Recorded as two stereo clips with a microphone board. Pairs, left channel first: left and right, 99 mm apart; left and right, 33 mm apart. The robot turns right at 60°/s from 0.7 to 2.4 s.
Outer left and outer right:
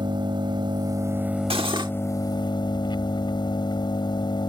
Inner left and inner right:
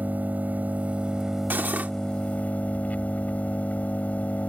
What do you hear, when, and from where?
0.0 s an engine running: 50° right; by 4.5 s 50° left
1.5 s cutlery clinking: 70° right (ahead or behind); by 1.9 s 45° right (ahead or behind)